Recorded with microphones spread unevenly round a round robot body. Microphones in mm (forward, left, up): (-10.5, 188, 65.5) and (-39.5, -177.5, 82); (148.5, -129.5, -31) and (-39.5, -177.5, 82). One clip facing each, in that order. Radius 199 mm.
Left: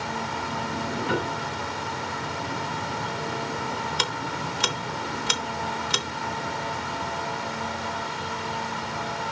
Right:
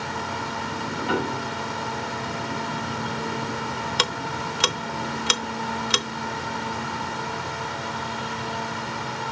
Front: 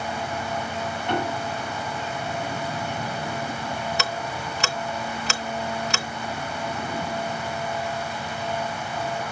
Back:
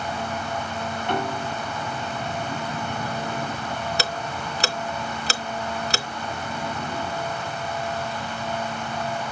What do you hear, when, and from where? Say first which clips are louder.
1.1 s a piano: right 2 dB, even; 75° right, 7.5 m
4.0 s ticking: right 2 dB, back 1 dB; 125° right, 0.8 m